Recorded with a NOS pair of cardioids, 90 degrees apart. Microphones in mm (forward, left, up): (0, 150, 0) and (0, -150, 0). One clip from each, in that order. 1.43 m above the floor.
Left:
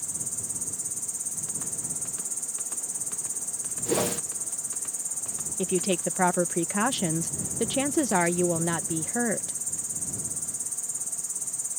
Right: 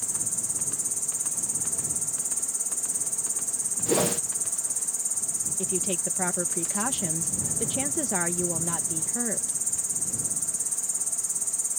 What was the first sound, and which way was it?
An insect, 20° right.